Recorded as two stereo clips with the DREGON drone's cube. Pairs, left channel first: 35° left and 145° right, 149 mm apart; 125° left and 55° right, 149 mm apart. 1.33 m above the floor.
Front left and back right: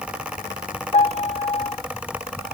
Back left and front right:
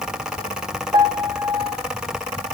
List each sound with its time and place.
0.9 s a piano: straight ahead, 1.1 m